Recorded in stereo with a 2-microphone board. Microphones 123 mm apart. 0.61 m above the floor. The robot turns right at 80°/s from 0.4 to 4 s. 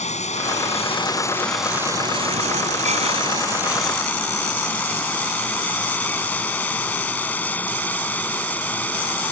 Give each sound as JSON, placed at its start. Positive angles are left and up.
{"t": 0.0, "sound": "running water", "azimuth_deg": 85}